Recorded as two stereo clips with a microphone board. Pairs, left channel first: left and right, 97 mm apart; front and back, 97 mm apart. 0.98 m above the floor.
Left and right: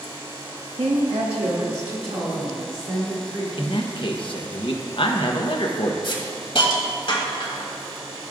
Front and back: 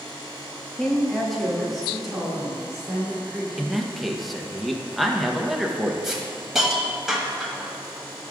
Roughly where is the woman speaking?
Right.